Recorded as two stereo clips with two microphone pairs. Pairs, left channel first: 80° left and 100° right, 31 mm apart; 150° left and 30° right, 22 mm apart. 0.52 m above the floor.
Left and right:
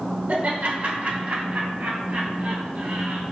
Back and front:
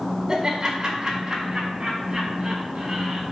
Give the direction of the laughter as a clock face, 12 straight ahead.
3 o'clock.